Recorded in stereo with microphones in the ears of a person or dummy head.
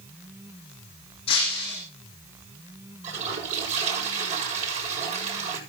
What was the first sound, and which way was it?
Breaking glass, 40° left (ahead or behind).